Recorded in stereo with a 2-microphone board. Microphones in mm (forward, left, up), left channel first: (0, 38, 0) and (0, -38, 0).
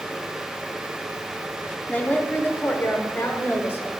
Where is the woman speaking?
20° left (ahead or behind), 1.0 m; by 3.9 s 35° left (ahead or behind), 1.9 m.